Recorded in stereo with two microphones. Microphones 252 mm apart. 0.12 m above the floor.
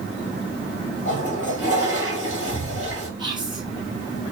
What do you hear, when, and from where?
1.1 s a toilet flushing: 30° left (ahead or behind), 2.5 m
3.2 s whispering: 15° right (ahead or behind), 1.4 m